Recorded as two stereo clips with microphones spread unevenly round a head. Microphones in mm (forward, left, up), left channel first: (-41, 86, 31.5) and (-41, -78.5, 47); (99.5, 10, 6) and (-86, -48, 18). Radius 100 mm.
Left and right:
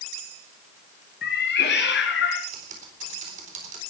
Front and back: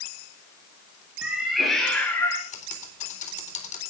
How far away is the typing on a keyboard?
About 4 m.